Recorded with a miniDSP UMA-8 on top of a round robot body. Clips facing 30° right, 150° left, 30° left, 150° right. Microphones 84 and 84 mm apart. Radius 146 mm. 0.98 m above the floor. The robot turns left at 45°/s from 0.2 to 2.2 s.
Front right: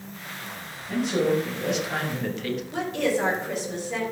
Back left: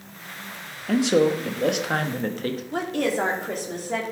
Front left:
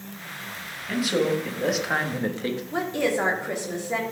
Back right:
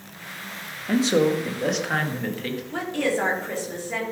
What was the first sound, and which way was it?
A man speaking, 155° left.